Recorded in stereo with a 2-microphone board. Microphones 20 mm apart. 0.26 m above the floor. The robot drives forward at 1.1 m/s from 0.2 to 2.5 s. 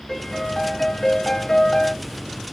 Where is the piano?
15° left (ahead or behind), 2.0 m; by 2.0 s 30° left (ahead or behind), 1.1 m.